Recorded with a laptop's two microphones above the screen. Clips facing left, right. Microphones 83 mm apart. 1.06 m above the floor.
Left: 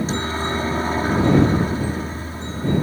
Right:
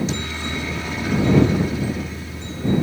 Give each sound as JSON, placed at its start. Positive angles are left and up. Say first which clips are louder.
{"t": 0.0, "sound": "a helicopter", "louder": "left 3 dB", "side_deg": 35}